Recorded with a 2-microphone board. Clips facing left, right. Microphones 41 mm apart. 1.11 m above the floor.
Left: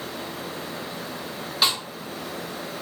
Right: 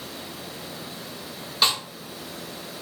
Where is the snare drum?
5° left (ahead or behind), 0.7 m.